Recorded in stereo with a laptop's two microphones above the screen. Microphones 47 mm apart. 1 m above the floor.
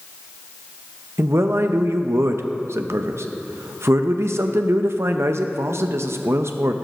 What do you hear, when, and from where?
1.2 s a man speaking: 75° right (ahead or behind), 0.5 m